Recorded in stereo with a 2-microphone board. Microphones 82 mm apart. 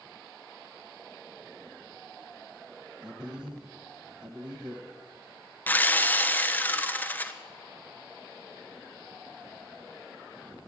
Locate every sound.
3.0 s a man speaking: 5° right (ahead or behind), 1.3 m
5.7 s sawing: 20° left (ahead or behind), 0.6 m